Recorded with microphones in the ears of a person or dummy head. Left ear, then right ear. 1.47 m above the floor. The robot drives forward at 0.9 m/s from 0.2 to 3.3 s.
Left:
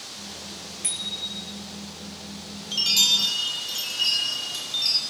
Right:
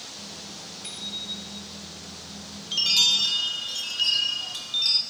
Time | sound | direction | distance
0.8 | a bicycle bell | 40° left (ahead or behind) | 2.5 m
2.7 | a chime | 10° right (ahead or behind) | 0.8 m